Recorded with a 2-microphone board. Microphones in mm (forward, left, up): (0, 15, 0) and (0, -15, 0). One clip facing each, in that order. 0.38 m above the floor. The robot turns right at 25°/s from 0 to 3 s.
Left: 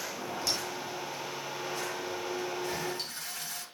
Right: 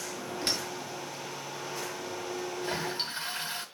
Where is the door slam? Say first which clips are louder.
Right 2 dB; 45° right (ahead or behind), 4 m; by 0.7 s 35° right (ahead or behind), 4 m.